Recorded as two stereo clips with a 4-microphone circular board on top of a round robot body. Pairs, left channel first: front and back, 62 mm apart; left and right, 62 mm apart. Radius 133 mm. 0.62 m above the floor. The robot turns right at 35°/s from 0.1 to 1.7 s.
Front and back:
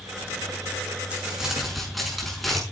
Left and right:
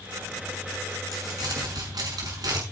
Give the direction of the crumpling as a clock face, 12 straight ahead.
4 o'clock.